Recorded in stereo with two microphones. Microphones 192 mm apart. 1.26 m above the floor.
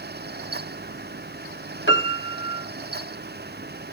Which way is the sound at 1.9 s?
70° left (ahead or behind).